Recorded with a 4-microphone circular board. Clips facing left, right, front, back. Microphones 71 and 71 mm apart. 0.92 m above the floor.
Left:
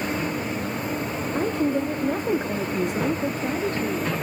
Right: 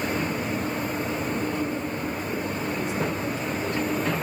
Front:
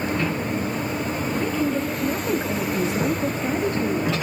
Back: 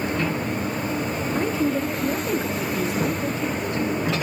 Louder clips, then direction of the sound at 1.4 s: Left 4 dB, back 1 dB; 110° left.